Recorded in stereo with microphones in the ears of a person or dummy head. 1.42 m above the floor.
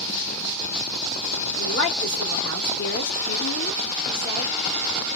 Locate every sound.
1.6 s a woman speaking: 70° left (ahead or behind), 1.3 m